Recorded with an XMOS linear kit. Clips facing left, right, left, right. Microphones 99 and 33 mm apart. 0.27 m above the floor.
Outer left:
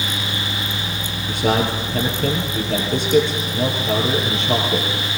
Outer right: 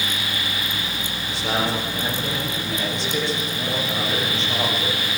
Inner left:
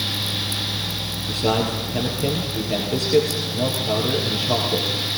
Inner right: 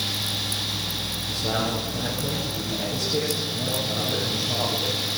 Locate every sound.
1.3 s a man speaking: 55° left (ahead or behind), 6 m